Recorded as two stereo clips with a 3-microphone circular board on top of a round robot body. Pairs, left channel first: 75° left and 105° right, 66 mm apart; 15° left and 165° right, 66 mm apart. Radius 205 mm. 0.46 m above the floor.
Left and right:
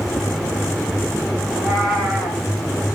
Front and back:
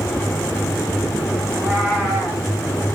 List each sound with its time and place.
1.5 s a cat meowing: 35° right, 6 m